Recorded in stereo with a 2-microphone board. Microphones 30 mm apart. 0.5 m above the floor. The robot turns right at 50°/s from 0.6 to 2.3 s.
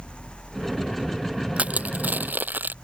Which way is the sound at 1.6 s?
45° right (ahead or behind).